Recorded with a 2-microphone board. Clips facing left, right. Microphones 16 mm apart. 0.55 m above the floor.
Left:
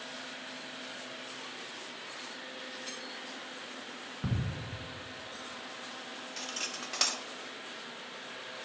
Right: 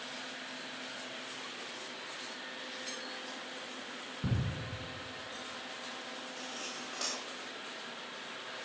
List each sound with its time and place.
4.2 s ticking: 5° left (ahead or behind), 1.4 m
6.4 s cutlery clinking: 50° left (ahead or behind), 0.8 m